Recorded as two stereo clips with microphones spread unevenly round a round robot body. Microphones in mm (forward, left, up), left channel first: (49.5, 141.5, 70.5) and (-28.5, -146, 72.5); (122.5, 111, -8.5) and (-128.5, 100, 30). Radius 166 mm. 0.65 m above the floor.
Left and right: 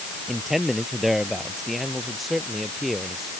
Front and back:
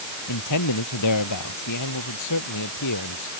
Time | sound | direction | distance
0.3 | a man speaking | 15° right | ?